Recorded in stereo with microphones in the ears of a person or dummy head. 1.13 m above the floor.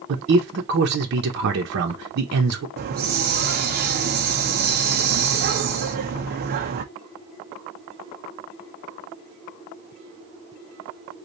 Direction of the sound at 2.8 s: 45° right (ahead or behind).